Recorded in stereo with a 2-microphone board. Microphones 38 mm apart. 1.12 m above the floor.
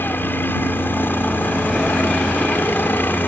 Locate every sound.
0.0 s a helicopter: 65° left (ahead or behind)